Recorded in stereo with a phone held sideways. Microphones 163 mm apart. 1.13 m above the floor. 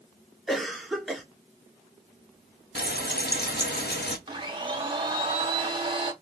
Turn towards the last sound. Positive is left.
turn(degrees=-30)  # may be behind; listen again after turning